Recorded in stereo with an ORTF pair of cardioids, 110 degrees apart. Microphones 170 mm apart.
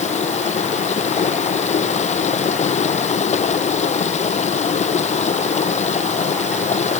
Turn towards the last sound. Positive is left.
turn(degrees=40)